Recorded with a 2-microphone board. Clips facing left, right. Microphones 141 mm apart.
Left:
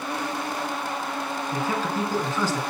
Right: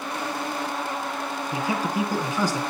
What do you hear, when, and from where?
1.5 s a man speaking: 15° right (ahead or behind), 1.6 m